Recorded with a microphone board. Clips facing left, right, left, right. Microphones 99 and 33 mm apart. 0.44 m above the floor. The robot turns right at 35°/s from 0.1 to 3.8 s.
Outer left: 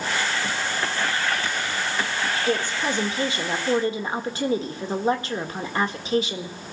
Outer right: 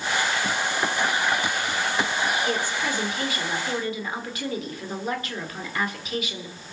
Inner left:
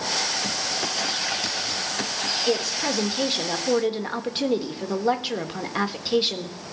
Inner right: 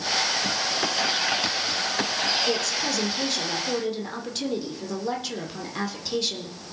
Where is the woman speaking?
30° left, 1.5 m; by 6.6 s 75° left, 1.5 m.